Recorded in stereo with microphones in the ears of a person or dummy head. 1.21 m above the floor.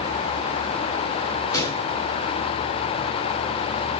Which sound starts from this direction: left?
A gunshot, at 1.5 s.